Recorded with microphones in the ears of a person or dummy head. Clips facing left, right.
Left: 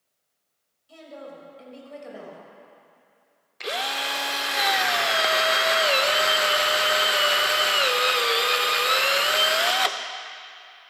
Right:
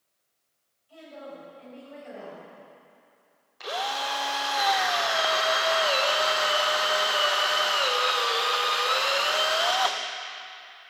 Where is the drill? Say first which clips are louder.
Left 1 dB; 35° left (ahead or behind), 0.6 m.